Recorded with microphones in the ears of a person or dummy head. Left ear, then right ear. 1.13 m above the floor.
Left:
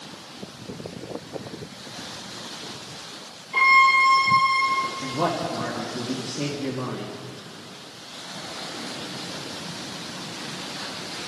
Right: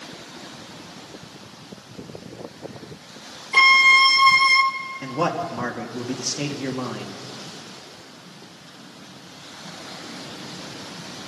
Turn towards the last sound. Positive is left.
turn(degrees=-80)